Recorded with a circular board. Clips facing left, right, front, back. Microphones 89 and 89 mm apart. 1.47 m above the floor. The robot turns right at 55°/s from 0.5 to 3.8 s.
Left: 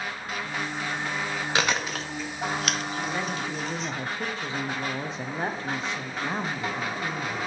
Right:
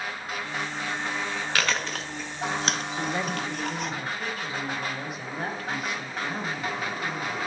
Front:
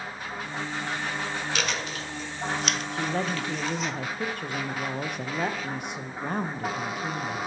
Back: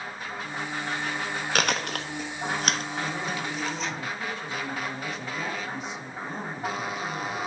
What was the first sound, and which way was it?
Chewing, 155° left.